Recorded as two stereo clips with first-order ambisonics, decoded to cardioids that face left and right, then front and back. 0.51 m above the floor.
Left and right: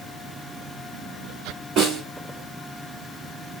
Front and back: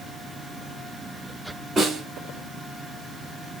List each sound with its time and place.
1.8 s a snare drum: 110° right, 1.7 m